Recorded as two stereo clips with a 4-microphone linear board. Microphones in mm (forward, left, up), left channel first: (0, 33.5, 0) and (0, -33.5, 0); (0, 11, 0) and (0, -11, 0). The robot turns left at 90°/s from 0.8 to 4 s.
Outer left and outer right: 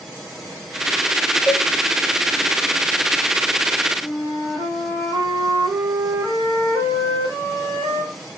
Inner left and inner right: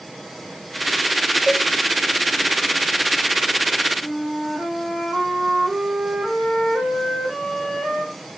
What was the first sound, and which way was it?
A cowbell, 25° right (ahead or behind).